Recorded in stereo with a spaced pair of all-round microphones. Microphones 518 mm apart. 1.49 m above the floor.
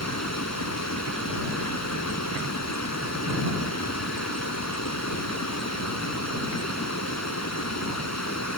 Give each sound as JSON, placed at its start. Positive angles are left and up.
{"t": 0.0, "sound": "running water", "side_deg": 30}